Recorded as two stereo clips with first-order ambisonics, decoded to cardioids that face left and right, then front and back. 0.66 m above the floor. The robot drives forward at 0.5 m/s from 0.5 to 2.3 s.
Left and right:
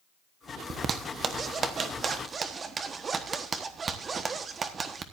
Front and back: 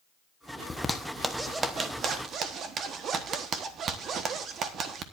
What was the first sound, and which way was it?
A zipper, 65° right.